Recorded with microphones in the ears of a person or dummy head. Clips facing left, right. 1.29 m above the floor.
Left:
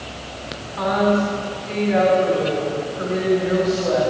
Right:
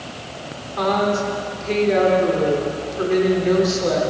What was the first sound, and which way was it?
A woman speaking, 60° right (ahead or behind).